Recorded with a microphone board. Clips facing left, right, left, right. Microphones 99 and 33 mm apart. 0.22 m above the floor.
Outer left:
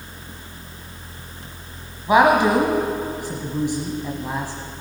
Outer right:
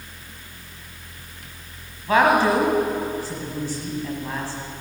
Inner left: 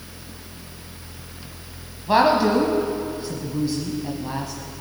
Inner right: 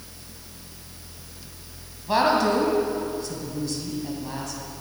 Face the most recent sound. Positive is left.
turn(degrees=15)  # may be behind; listen again after turning